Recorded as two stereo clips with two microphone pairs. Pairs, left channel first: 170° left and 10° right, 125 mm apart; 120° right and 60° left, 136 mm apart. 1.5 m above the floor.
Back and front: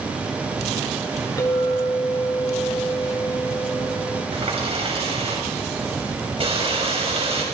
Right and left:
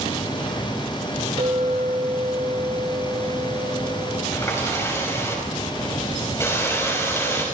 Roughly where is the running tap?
Ahead right.